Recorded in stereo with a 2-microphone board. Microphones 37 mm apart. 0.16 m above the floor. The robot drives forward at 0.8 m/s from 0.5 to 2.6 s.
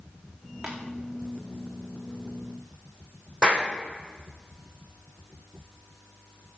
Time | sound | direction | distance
0.6 | tapping | 10° right (ahead or behind) | 4 m
3.4 | a clap | 10° left (ahead or behind) | 6.5 m